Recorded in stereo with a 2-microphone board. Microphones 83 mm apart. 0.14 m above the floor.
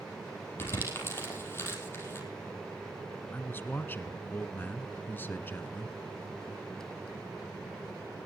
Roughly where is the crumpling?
Left.